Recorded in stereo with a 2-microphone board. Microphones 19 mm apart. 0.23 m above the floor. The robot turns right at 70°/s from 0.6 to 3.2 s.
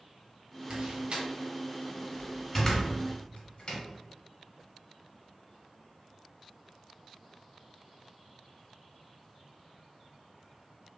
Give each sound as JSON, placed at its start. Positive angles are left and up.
{"t": 0.7, "sound": "a door slam", "side_deg": -50, "distance_m": 1.4}